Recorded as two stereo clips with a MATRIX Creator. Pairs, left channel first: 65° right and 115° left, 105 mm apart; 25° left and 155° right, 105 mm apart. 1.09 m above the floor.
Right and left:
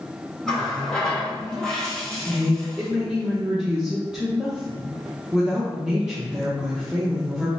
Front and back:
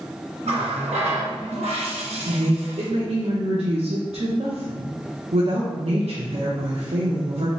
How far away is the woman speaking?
About 0.7 m.